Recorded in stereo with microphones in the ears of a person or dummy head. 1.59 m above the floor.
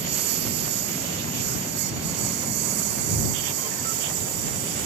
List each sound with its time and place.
0.0 s a lawn mower: 60° right (ahead or behind); by 4.8 s 65° right (ahead or behind)